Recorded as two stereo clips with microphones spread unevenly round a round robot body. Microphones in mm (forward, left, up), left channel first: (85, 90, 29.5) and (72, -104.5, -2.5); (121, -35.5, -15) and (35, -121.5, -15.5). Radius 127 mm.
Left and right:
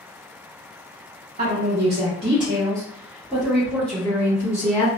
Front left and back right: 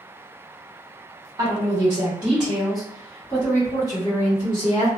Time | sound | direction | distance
1.4 | a woman speaking | 90° right | 1.3 m